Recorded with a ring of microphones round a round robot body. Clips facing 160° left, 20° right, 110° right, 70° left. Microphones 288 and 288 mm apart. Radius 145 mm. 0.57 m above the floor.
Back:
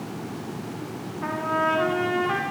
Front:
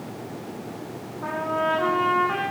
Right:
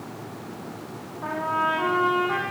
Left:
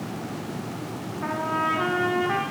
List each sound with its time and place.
1.2 s a trumpet: 115° left, 9.5 m